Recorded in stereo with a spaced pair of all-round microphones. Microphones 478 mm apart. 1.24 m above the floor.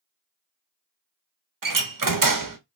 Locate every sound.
1.6 s a door slam: 45° right (ahead or behind), 0.7 m